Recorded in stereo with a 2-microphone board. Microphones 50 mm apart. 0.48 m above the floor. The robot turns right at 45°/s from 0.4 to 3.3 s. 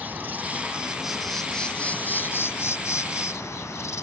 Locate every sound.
0.0 s an insect: 35° right; by 4.0 s 95° left